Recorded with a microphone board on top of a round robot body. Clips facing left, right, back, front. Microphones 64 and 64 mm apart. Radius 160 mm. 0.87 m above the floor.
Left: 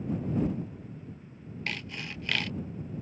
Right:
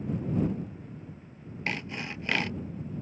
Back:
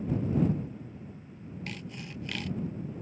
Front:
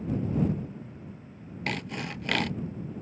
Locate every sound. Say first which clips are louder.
1.7 s sawing: right 4 dB, front 11 dB; 25° right